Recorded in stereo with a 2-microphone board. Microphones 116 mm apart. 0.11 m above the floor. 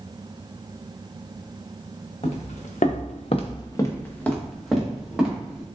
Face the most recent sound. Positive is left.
turn(degrees=-5)  # may be behind; listen again after turning